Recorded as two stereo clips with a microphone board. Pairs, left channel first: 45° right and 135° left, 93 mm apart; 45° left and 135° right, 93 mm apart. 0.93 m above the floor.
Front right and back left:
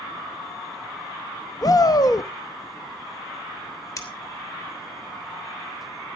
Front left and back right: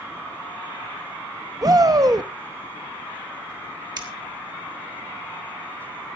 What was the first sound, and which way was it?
A shout, 90° right.